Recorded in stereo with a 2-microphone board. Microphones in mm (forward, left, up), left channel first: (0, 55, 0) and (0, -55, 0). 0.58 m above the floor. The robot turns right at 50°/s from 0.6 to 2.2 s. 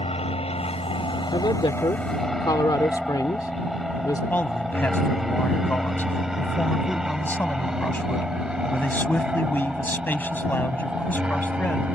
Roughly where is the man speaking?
Centre.